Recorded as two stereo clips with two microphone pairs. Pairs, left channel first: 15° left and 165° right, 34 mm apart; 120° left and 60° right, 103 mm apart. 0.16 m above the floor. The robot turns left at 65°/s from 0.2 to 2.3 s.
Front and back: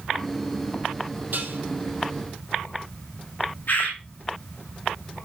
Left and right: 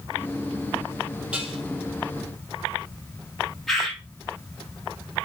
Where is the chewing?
No chewing in this recording.